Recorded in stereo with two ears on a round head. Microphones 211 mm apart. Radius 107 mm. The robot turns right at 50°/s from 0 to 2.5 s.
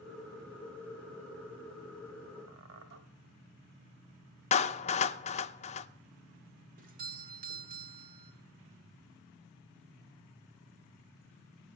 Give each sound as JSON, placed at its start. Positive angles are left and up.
{"t": 2.5, "sound": "a squeak", "side_deg": -50, "distance_m": 1.5}
{"t": 4.5, "sound": "a clap", "side_deg": 30, "distance_m": 0.6}
{"t": 6.8, "sound": "a doorbell", "side_deg": -40, "distance_m": 1.8}